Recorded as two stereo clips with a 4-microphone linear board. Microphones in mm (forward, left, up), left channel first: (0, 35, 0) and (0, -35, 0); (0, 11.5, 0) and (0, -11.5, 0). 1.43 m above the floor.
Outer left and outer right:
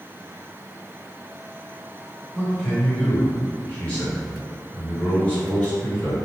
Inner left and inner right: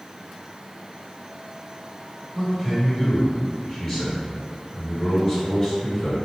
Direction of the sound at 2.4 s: 20° left (ahead or behind).